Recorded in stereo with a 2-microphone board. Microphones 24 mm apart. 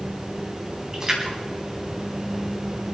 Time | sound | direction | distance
0.9 | a splash | 25° right (ahead or behind) | 5.5 m